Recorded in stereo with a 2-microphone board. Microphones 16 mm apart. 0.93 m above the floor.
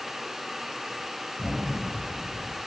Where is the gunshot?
55° right (ahead or behind), 1.4 m.